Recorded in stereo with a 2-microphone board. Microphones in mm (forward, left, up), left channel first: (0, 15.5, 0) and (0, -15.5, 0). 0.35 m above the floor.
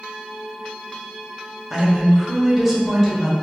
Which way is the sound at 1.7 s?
10° right (ahead or behind).